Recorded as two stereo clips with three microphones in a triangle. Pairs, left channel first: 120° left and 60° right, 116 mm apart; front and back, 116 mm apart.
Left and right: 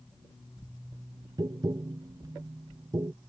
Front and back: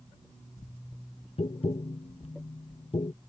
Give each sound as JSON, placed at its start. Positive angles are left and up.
{"t": 1.4, "sound": "tapping", "azimuth_deg": -10}